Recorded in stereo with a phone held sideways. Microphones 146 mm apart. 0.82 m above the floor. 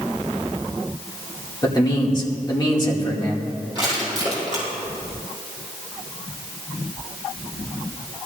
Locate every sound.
1.6 s a man speaking: 30° left (ahead or behind), 2.5 m
3.8 s crushing: 40° left (ahead or behind), 5.5 m